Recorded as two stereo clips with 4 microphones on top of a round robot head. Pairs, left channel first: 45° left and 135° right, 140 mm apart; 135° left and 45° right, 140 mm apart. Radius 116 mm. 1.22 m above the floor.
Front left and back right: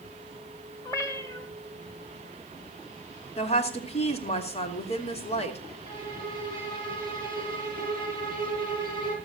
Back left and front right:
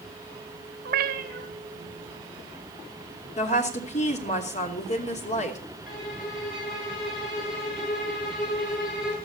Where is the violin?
105° left, 6.5 m.